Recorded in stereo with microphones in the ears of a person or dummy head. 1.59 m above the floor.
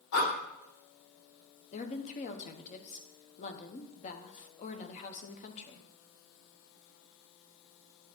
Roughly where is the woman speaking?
Left.